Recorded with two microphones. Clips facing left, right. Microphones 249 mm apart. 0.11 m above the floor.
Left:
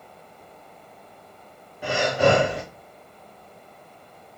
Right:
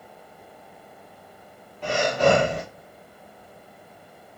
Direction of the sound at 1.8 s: 10° left (ahead or behind).